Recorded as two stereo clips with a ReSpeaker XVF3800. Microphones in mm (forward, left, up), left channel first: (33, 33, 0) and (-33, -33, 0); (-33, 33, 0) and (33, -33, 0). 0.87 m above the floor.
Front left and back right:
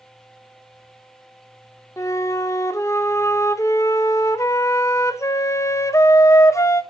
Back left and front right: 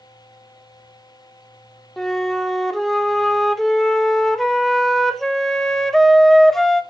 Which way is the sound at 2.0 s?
50° left.